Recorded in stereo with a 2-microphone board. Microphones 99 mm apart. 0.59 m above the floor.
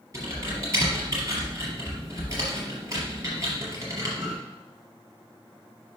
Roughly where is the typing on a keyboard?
Right.